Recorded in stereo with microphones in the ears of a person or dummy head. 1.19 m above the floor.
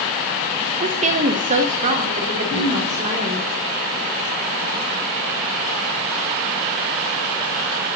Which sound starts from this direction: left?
Throat clearing, at 2.5 s.